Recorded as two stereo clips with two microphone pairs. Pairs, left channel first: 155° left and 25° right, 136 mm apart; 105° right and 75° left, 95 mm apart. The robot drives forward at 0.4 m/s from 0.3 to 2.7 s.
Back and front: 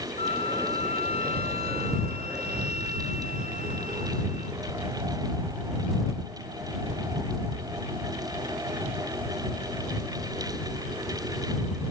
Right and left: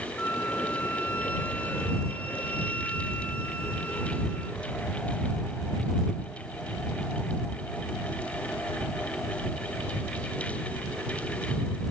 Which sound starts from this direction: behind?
A flute, at 0.2 s.